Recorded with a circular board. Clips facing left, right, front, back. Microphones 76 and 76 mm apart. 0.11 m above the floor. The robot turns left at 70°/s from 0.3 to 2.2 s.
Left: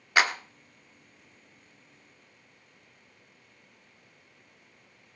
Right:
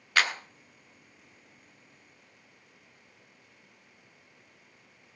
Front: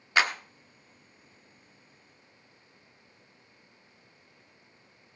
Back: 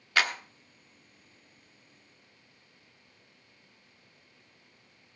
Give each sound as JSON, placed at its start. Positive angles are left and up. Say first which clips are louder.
{"t": 0.2, "sound": "a clap", "louder": "left 3 dB, front 2 dB", "azimuth_deg": 45, "distance_m": 1.0}